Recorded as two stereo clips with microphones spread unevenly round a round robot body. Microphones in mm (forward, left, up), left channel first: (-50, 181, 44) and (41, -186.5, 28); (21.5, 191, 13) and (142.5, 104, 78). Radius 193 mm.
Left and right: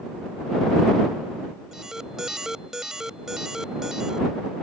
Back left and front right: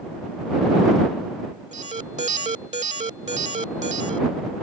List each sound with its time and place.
1.7 s an alarm: 15° left